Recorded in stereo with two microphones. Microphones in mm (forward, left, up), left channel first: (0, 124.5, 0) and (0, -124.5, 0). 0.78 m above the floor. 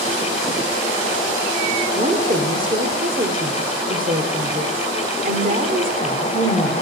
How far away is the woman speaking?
About 2 m.